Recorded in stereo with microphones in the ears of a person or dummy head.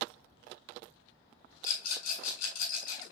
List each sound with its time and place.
1.6 s a rattle: 50° left (ahead or behind), 4.5 m